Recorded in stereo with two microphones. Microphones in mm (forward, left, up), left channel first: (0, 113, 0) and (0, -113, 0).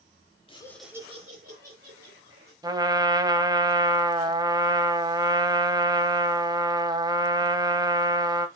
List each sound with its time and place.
0.5 s laughter: 25° left (ahead or behind), 0.9 m; by 2.5 s 65° right (ahead or behind), 2 m
2.6 s a trumpet: 15° right (ahead or behind), 0.5 m